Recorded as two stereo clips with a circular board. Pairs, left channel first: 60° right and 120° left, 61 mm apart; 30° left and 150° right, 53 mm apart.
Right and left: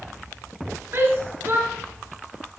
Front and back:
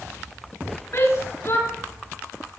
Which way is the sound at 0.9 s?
65° left.